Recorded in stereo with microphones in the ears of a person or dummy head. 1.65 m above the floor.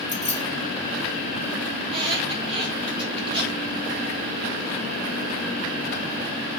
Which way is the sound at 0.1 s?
5° right (ahead or behind).